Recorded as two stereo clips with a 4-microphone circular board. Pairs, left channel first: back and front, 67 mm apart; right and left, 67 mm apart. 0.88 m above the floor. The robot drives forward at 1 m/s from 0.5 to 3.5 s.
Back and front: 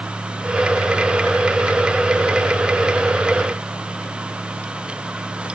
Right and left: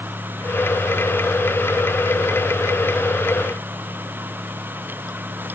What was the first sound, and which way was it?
Only background noise.